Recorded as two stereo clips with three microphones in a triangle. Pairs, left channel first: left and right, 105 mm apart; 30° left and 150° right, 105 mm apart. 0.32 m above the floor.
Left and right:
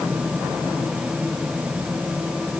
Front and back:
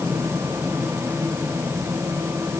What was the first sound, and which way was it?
Only background noise.